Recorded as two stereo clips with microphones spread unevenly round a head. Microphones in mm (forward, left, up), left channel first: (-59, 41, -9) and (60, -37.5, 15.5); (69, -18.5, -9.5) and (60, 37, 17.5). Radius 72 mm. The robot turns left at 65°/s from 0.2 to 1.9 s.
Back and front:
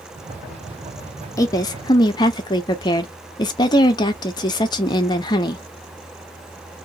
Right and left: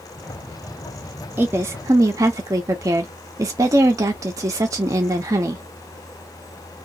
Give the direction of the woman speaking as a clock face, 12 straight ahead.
6 o'clock.